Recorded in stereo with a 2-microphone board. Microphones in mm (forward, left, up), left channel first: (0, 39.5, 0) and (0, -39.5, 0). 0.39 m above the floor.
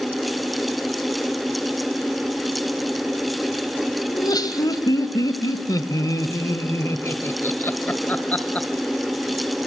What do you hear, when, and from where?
4.1 s laughter: 55° left (ahead or behind), 2 m; by 8.7 s 15° left (ahead or behind), 1.9 m